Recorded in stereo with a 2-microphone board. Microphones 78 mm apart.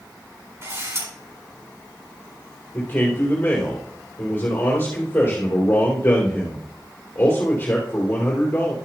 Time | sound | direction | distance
0.6 | a camera shutter | 40° right (ahead or behind) | 4.5 m
2.7 | a man speaking | 25° left (ahead or behind) | 3 m